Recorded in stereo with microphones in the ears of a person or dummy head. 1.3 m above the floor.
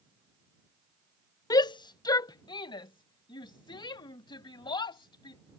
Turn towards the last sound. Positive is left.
turn(degrees=20)  # may be behind; listen again after turning